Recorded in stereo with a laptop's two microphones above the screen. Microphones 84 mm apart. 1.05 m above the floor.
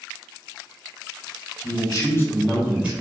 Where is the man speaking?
60° left (ahead or behind), 1.4 m; by 2.9 s 20° right (ahead or behind), 1.3 m.